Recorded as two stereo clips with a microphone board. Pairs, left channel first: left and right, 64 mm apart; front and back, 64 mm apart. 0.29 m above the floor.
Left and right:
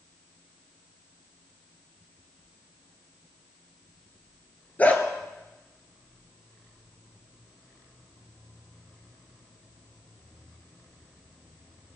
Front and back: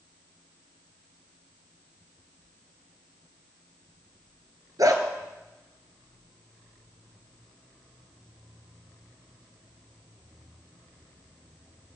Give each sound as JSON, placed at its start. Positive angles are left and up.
{"t": 4.8, "sound": "a dog barking", "azimuth_deg": 155, "distance_m": 1.8}